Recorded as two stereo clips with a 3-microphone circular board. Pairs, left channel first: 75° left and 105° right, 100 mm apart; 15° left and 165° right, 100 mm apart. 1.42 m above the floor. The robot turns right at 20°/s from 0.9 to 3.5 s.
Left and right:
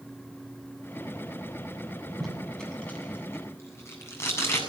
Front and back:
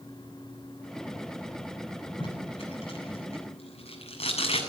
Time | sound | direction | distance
2.2 | tape being pulled | 15° right | 8 m